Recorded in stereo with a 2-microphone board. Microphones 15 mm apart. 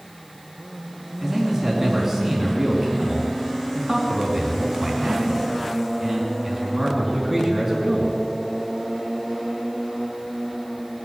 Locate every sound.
1.2 s a man speaking: 25° right (ahead or behind), 3.5 m